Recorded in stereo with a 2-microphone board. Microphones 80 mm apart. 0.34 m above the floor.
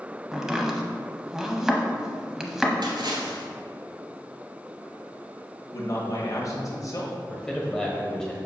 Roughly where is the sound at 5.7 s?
Left.